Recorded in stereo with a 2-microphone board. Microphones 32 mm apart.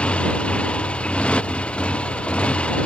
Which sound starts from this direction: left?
A motorcycle, at 0.0 s.